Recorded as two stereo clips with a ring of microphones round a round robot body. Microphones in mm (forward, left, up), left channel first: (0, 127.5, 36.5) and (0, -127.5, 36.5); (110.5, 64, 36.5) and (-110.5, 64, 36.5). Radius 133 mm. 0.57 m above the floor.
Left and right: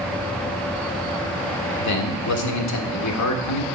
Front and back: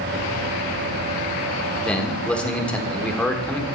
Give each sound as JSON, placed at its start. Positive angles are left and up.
{"t": 1.8, "sound": "a man speaking", "azimuth_deg": 85, "distance_m": 1.4}